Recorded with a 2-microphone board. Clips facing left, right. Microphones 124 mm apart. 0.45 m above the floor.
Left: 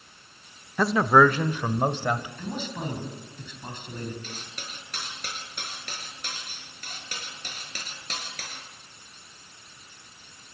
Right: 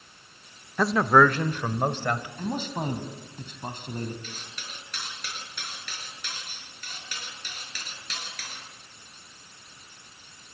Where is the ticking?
I don't hear ticking.